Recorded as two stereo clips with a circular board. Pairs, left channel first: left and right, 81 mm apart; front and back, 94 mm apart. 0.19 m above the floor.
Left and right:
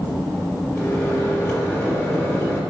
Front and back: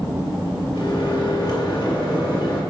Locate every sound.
0.7 s a microwave: 25° left, 2.5 m